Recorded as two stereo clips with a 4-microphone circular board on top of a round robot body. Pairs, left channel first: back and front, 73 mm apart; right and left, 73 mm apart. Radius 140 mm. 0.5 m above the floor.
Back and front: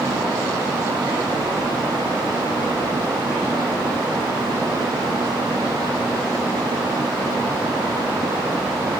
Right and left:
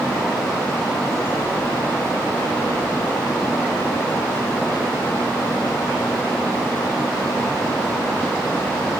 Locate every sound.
Only background noise.